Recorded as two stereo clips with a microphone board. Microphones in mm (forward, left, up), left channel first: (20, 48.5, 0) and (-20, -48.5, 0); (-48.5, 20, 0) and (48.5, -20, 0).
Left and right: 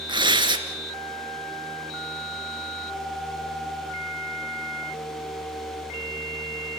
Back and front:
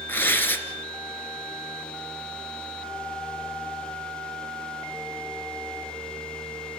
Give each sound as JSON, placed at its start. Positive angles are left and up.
{"t": 0.1, "sound": "tearing paper", "azimuth_deg": -135, "distance_m": 2.5}